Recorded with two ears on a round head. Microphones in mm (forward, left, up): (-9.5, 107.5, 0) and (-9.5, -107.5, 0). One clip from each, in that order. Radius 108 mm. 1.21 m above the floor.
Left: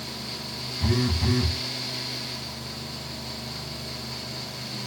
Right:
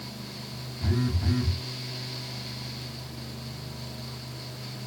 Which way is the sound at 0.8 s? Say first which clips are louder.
Left 5 dB; 30° left (ahead or behind).